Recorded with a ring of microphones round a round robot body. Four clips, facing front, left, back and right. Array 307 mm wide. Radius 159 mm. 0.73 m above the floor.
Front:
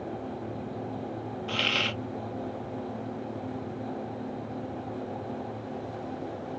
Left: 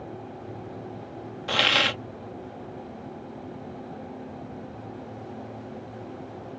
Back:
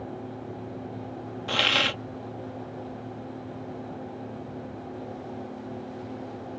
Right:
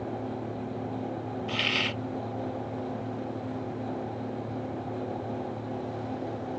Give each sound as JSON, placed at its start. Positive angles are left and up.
{"t": 1.5, "sound": "a hiss", "azimuth_deg": 120}